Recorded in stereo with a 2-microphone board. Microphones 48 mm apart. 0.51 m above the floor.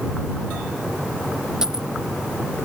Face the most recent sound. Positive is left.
turn(degrees=-10)  # may be behind; listen again after turning